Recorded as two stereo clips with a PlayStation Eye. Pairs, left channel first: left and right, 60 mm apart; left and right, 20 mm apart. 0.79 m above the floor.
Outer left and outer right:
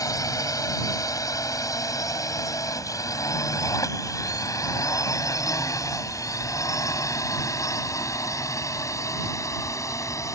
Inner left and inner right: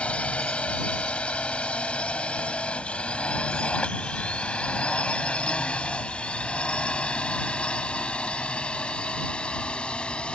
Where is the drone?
75° left (ahead or behind); by 10.3 s 60° left (ahead or behind).